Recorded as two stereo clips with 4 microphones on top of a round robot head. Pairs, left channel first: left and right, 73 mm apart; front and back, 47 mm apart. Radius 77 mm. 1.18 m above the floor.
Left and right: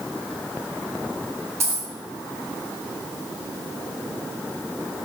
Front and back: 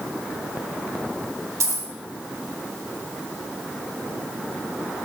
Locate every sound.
1.6 s a dropped coin: 150° right, 3 m